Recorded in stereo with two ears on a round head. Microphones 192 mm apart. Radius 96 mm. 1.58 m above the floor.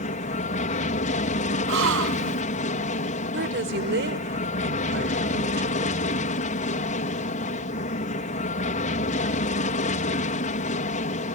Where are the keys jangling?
I don't hear keys jangling.